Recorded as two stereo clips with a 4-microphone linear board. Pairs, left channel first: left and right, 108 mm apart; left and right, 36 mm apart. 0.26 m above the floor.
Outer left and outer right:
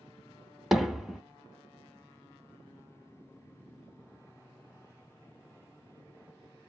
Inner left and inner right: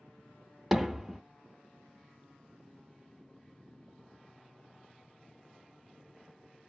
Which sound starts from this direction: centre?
Hammering, at 0.7 s.